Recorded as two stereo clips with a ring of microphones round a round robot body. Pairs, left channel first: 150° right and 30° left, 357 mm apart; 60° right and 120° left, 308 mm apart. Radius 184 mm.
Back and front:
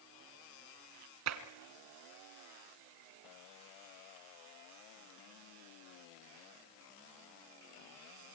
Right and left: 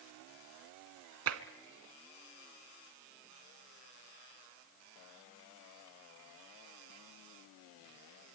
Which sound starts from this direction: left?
Tapping, at 1.3 s.